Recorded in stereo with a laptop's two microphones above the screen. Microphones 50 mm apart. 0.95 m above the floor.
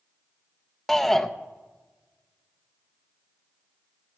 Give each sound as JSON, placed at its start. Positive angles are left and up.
{"t": 0.9, "sound": "a shout", "side_deg": 5, "distance_m": 0.5}